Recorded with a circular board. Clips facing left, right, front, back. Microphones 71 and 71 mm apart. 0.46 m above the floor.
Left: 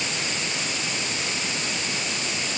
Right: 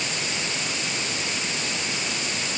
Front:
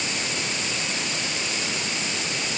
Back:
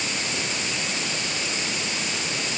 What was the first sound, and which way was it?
Only background noise.